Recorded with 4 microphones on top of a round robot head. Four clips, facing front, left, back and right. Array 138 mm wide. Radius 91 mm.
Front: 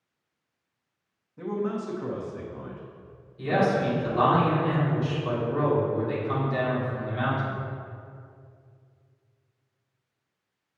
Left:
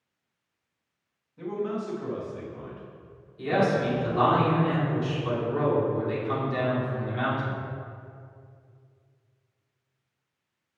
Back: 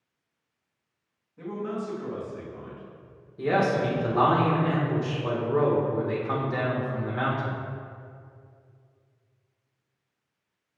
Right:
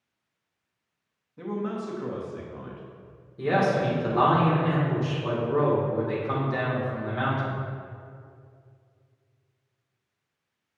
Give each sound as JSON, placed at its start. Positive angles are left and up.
{"t": 1.4, "sound": "a man speaking", "azimuth_deg": -50, "distance_m": 1.3}
{"t": 3.4, "sound": "a man speaking", "azimuth_deg": -140, "distance_m": 1.7}